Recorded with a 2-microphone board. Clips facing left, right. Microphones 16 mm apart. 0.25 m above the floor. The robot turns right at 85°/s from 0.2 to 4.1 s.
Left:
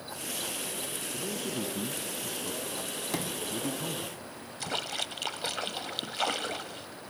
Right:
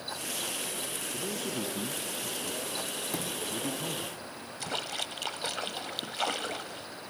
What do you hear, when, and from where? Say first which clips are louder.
1.1 s a man speaking: even; 50° right (ahead or behind), 2.5 m; by 4.1 s 15° right (ahead or behind), 2.5 m
3.1 s a sliding door: left 1 dB; 55° left (ahead or behind), 1.6 m; by 3.5 s 40° left (ahead or behind), 1.6 m
4.6 s a splash: left 1 dB; 5° left (ahead or behind), 1.1 m